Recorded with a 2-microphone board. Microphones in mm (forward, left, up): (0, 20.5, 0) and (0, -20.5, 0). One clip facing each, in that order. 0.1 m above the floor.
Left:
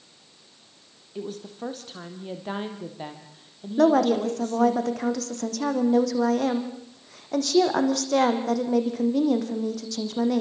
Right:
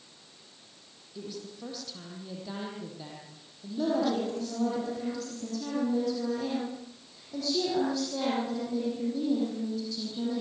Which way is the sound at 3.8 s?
75° left (ahead or behind).